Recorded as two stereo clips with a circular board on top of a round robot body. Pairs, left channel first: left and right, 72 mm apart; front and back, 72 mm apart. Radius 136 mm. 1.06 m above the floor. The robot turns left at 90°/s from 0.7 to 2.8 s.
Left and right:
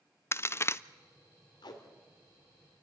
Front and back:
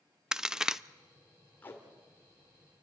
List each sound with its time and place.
0.3 s a crack: 105° left, 0.6 m; by 0.8 s 95° left, 0.6 m
1.6 s tape being pulled: 70° left, 2.5 m; by 1.8 s 50° left, 2.5 m